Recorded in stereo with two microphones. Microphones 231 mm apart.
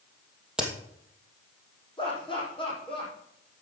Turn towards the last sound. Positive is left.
turn(degrees=20)  # may be behind; listen again after turning